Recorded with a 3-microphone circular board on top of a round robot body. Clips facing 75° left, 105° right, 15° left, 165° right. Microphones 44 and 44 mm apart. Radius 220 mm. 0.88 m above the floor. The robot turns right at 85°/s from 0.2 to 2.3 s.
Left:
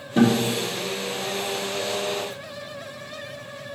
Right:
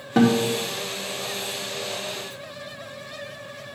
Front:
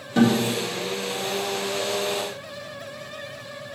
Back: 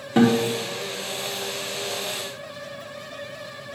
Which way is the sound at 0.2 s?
100° right.